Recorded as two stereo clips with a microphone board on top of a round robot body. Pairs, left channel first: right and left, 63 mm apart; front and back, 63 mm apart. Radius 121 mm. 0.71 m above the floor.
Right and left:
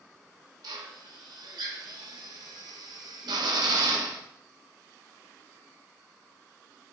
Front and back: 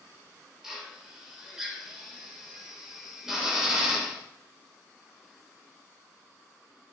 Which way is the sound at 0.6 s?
100° left.